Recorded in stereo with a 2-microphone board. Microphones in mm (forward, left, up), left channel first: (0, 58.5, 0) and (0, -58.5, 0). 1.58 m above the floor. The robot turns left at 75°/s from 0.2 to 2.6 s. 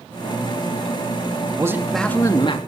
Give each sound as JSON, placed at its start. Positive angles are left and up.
{"t": 1.6, "sound": "a man speaking", "azimuth_deg": -155, "distance_m": 3.0}